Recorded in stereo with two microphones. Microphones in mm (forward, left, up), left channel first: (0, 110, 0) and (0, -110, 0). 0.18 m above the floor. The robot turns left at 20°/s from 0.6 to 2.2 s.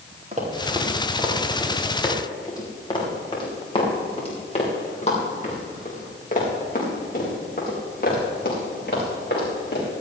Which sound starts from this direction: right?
Running footsteps, at 0.3 s.